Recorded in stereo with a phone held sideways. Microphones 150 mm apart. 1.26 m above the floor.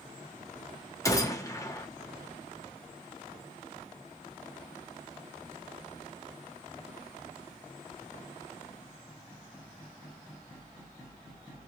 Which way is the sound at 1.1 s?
20° left (ahead or behind).